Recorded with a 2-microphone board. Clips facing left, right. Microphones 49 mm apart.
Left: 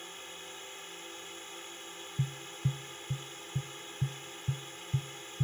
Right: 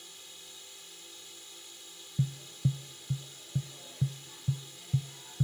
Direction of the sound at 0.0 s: 40° left (ahead or behind).